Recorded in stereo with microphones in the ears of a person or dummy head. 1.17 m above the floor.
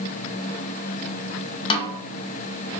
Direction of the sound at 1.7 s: 25° left (ahead or behind).